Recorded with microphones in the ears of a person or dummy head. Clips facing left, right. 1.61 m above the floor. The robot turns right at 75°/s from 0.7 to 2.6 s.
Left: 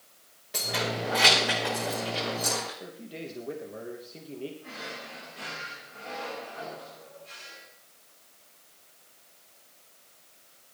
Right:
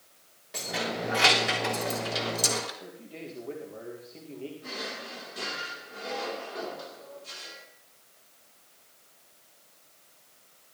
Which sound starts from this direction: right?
A drawer, at 4.6 s.